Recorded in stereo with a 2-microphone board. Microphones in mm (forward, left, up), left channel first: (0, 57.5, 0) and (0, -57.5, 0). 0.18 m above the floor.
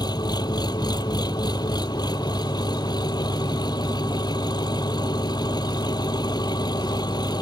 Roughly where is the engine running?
Left.